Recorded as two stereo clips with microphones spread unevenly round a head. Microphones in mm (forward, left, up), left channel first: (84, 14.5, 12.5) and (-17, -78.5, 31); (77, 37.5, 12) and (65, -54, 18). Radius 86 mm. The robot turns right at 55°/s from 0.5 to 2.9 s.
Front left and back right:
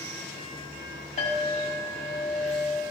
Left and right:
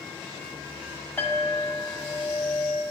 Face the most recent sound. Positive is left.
turn(degrees=110)